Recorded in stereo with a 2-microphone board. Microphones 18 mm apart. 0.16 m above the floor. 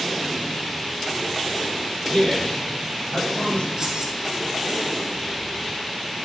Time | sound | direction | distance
2.1 | a man speaking | 60° left (ahead or behind) | 4 m
3.8 | keys jangling | 40° right (ahead or behind) | 1.8 m